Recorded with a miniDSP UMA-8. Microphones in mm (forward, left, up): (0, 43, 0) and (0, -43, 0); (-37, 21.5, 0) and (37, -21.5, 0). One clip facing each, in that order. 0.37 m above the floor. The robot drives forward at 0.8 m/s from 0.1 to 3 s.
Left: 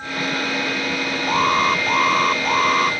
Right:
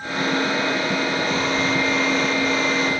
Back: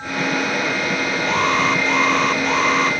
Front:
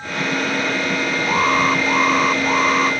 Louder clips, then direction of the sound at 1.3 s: Left 4 dB, front 1 dB; 50° left.